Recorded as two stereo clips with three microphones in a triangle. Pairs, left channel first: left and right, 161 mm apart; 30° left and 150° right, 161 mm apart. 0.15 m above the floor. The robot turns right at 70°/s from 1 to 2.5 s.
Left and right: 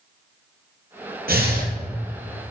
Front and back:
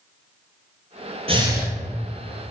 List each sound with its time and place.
1.3 s breathing: 100° right, 1.7 m; by 1.7 s 65° right, 1.7 m